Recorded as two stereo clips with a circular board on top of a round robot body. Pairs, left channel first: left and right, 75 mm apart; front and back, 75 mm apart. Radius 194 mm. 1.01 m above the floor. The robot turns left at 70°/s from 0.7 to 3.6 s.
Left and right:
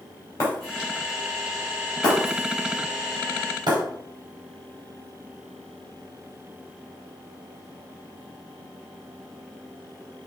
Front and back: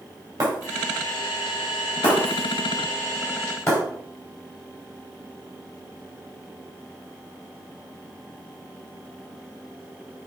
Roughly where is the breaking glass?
Behind left.